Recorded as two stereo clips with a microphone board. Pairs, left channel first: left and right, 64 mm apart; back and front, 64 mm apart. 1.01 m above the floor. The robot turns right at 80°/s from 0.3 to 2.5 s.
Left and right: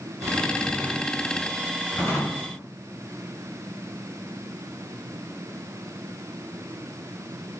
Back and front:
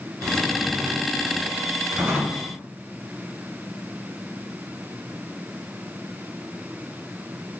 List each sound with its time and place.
0.2 s a drawer: 85° right, 1.9 m; by 2.5 s 90° left, 1.9 m